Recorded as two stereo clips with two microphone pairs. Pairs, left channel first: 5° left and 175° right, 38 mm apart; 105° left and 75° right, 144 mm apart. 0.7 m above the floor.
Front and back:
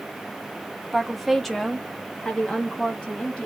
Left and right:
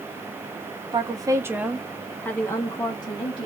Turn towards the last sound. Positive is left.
turn(degrees=60)